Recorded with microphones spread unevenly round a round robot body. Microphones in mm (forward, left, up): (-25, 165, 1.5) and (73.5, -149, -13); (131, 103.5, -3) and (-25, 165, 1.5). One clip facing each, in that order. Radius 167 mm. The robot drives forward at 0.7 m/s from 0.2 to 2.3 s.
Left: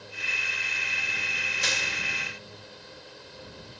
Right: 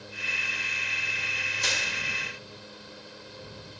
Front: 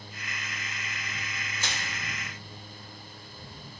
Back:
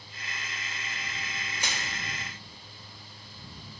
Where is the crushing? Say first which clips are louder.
Even, even; 80° left, 2.5 m; by 1.9 s 85° left, 2 m.